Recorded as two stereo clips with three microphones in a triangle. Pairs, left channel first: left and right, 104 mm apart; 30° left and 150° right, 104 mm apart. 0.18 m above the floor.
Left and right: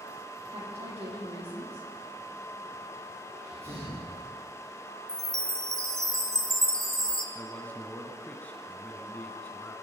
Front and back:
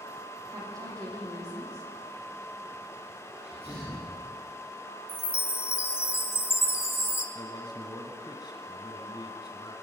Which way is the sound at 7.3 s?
20° left.